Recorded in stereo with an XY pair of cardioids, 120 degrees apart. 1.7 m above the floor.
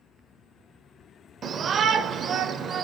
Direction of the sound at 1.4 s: 40° right.